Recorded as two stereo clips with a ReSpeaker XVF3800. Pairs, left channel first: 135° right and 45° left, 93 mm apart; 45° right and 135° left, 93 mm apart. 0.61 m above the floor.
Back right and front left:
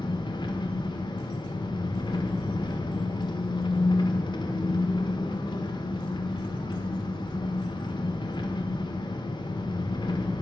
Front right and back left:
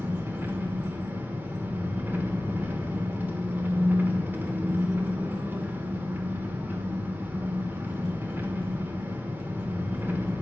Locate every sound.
0.0 s an engine running: 160° right, 1.4 m